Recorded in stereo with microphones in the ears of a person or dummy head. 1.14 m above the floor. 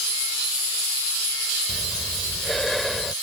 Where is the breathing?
Centre (ahead or behind).